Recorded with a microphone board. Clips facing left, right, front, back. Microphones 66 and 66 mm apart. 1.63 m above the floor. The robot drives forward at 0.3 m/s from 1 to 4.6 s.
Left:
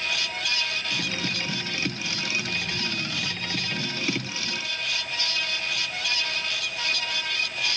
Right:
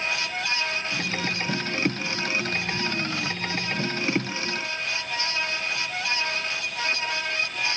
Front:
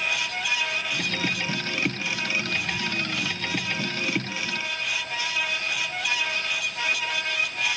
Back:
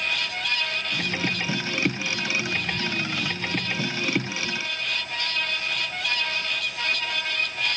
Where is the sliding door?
No sliding door in this recording.